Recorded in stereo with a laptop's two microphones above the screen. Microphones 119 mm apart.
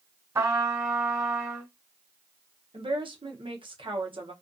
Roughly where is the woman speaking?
Right.